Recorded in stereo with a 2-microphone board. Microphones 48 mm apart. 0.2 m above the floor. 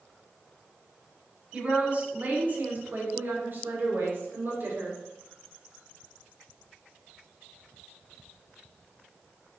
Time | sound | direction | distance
1.5 | a woman speaking | 30° right (ahead or behind) | 1.6 m